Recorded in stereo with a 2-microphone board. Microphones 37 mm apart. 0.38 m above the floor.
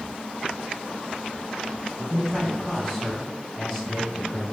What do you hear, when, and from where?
2.0 s a man speaking: 15° left (ahead or behind), 2.5 m